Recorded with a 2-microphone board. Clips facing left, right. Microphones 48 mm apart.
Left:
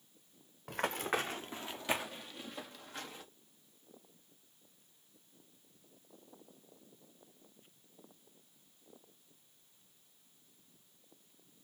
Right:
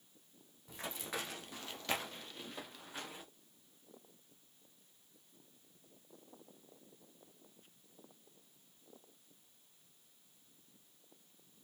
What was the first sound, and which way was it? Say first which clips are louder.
Running footsteps: left 9 dB; 60° left (ahead or behind).